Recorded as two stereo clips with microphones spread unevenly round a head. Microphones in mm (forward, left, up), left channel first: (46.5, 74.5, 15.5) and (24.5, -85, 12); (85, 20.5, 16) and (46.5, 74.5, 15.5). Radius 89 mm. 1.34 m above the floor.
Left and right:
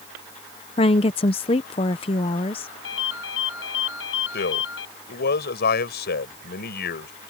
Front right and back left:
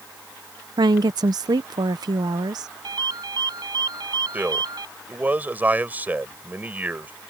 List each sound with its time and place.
0.8 s a woman speaking: 140° left
2.8 s a ringtone: 110° left
4.3 s a man speaking: 60° left